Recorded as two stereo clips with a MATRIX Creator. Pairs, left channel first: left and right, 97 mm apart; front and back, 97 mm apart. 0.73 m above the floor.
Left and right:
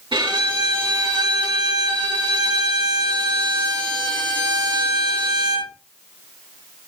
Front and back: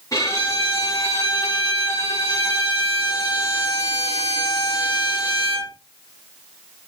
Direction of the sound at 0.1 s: 55° right.